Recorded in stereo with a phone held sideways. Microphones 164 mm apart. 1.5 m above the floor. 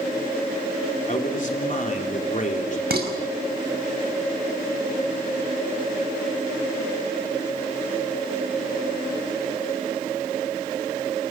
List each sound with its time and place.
1.1 s a man speaking: 55° left (ahead or behind), 3.5 m
2.9 s dishes clattering: 80° right, 5.5 m